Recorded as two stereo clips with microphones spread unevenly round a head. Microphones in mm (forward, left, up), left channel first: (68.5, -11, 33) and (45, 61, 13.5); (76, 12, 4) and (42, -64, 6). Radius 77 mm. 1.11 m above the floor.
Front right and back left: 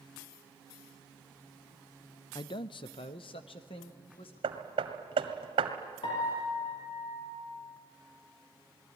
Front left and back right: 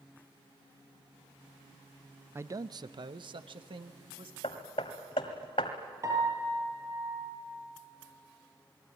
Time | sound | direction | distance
2.4 | a man speaking | 60° right | 0.5 m
4.4 | hammering | 110° left | 1.7 m
6.0 | a piano | 65° right | 7 m